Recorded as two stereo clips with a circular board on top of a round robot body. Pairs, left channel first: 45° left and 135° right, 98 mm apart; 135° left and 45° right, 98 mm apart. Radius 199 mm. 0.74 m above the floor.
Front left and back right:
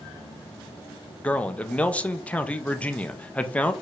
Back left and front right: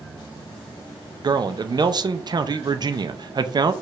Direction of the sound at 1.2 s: 30° right.